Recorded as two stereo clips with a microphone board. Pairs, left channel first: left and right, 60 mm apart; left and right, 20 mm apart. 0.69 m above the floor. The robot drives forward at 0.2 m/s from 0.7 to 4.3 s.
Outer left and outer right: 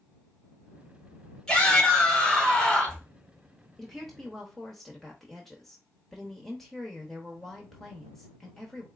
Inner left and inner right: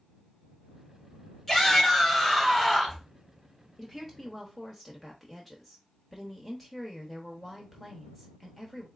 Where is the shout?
15° left (ahead or behind), 3 m; by 3.0 s 10° left (ahead or behind), 3 m.